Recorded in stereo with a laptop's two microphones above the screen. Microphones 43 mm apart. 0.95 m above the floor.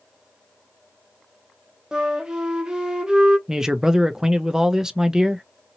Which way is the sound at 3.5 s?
15° right (ahead or behind).